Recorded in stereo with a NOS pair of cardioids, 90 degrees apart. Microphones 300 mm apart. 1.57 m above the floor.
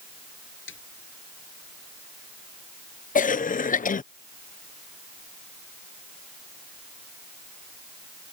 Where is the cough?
25° left.